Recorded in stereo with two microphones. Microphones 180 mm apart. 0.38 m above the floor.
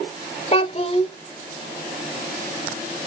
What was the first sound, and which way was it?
A child speaking, 35° left (ahead or behind).